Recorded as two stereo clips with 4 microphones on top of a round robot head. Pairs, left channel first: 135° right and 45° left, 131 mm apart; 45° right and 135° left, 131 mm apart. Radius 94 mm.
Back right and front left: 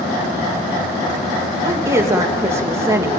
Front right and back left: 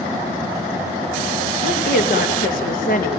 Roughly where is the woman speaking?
Ahead right.